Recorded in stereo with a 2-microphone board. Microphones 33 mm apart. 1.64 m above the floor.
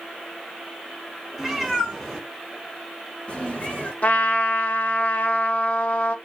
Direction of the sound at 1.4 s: 5° right (ahead or behind).